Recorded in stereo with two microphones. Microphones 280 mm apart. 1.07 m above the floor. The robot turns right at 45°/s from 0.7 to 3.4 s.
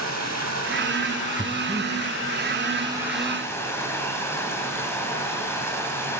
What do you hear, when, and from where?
0.0 s running water: 115° right, 3 m; by 6.2 s 10° left, 3 m
1.4 s breathing: 15° right (ahead or behind), 0.7 m; by 1.9 s 5° right (ahead or behind), 0.7 m